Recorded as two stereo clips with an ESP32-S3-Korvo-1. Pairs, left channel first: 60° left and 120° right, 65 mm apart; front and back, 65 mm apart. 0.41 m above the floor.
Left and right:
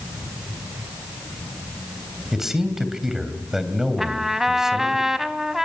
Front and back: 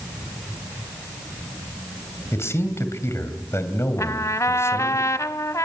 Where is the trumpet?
35° right, 0.8 m.